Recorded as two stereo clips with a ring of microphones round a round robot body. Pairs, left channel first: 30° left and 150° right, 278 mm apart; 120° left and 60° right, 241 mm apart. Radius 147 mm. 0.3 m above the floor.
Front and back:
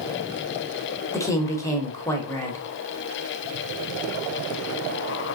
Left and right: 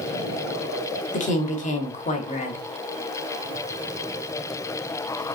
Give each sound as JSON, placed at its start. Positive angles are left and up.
{"t": 1.1, "sound": "a woman speaking", "azimuth_deg": 100, "distance_m": 1.0}